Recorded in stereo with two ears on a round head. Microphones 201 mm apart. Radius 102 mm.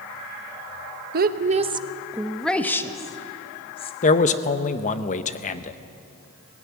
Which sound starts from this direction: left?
A man speaking, at 4.0 s.